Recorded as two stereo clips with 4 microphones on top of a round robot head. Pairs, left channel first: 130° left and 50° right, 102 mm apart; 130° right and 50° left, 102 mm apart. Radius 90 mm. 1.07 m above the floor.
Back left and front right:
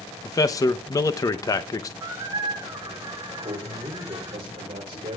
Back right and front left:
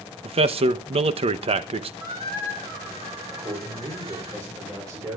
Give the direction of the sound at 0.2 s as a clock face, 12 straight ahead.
10 o'clock.